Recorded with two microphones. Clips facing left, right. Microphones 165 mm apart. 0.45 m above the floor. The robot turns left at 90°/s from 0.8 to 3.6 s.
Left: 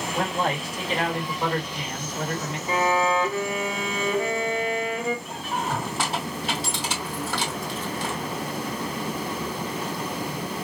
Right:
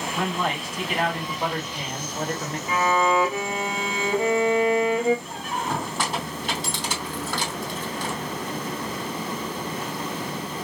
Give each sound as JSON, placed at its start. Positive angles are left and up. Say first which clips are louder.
{"t": 0.1, "sound": "a man speaking", "louder": "left 1 dB", "azimuth_deg": 55, "distance_m": 1.7}
{"t": 2.7, "sound": "a violin", "louder": "right 1 dB", "azimuth_deg": 40, "distance_m": 1.1}
{"t": 5.2, "sound": "a squeak", "louder": "even", "side_deg": 5, "distance_m": 2.5}